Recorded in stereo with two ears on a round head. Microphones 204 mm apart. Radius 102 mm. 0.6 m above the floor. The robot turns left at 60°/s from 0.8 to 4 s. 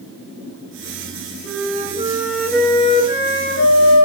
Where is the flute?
120° right, 6.5 m; by 4.1 s 90° left, 6.5 m.